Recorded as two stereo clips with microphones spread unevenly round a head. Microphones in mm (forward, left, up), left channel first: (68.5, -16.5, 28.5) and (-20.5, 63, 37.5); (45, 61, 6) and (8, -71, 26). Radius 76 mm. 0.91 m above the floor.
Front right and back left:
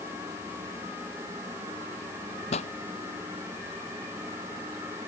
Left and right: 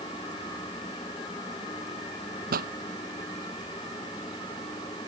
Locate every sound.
2.5 s a pop: 85° right